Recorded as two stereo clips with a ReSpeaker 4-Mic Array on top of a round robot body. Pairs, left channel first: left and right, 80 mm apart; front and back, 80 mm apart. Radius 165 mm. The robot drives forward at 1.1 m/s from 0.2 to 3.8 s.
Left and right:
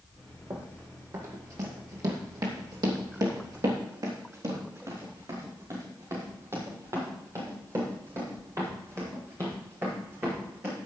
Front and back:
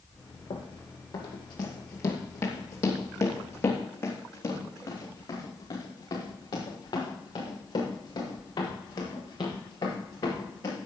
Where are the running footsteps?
30° right, 2 m.